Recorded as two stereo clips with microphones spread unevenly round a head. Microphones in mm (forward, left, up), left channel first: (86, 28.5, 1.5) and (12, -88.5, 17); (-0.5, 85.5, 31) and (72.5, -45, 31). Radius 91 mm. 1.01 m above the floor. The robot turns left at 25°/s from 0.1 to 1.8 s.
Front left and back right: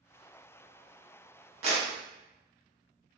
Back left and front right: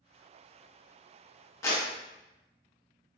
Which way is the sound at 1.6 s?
170° right.